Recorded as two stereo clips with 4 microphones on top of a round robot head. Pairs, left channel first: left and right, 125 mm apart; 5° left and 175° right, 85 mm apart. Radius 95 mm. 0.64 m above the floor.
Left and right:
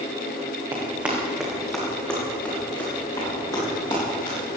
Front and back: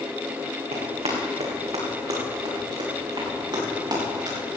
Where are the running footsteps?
160° right, 3 m; by 4.4 s 150° left, 6.5 m.